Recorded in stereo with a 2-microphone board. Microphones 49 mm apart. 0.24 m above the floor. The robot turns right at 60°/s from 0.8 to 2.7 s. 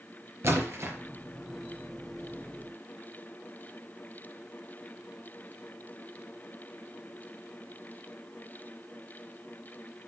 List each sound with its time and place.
0.4 s a splash: 60° right (ahead or behind), 4.5 m; by 1.0 s 55° right (ahead or behind), 4.5 m